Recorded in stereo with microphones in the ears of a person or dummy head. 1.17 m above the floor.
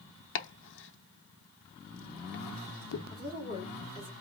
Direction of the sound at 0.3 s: 60° left (ahead or behind).